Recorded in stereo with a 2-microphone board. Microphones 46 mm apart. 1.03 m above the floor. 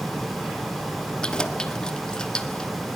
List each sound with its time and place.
1.2 s keys jangling: 20° left (ahead or behind), 1.3 m